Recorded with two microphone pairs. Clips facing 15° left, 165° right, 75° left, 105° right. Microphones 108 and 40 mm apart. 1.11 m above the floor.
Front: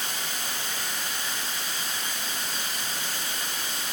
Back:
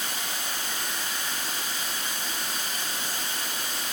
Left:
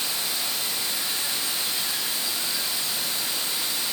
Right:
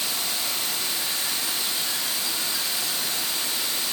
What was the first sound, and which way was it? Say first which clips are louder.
Running water: even, even; 120° right.